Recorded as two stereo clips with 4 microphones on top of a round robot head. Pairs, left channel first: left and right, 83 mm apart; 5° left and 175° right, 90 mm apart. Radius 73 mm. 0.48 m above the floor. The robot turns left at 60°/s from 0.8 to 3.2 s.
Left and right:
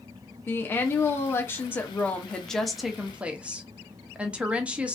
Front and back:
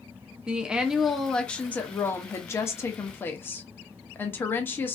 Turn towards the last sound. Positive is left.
turn(degrees=-30)